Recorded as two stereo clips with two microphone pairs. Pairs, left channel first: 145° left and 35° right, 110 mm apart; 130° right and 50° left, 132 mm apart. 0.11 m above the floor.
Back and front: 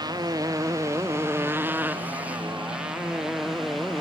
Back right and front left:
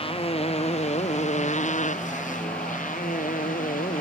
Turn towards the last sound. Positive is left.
turn(degrees=-125)